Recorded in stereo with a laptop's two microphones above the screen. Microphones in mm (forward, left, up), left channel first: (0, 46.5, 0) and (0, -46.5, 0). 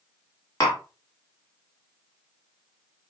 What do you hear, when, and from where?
0.6 s tapping: 35° left (ahead or behind), 1.8 m